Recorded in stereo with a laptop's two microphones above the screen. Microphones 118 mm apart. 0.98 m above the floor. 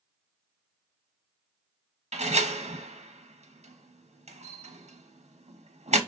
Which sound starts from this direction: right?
A door slam, at 2.1 s.